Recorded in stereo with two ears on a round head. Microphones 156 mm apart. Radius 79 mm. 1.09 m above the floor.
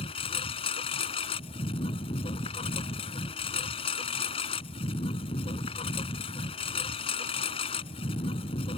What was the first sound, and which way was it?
A lawn mower, 30° left (ahead or behind).